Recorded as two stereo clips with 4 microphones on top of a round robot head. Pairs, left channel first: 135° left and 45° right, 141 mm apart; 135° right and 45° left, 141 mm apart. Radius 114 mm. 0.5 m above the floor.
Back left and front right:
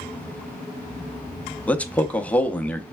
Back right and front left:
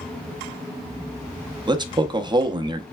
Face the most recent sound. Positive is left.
turn(degrees=60)